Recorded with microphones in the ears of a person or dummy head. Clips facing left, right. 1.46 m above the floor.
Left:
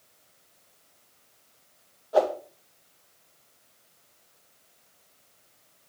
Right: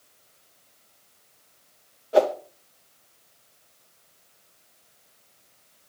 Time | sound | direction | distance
2.1 | a whoosh | 30° right (ahead or behind) | 0.6 m